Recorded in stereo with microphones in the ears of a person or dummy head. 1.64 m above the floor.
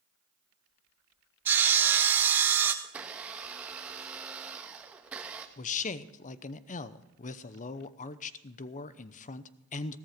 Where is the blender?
15° right (ahead or behind), 1.2 m.